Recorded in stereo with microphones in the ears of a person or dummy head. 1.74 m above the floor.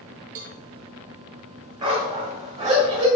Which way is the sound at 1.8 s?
15° right (ahead or behind).